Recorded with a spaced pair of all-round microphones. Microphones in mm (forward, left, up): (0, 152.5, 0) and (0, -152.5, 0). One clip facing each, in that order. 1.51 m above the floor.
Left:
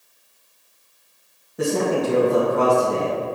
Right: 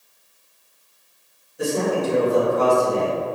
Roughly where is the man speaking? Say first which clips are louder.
Left 1 dB; left.